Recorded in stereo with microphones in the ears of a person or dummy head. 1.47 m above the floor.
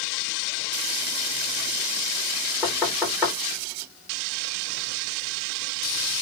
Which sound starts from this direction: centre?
Knocking, at 2.6 s.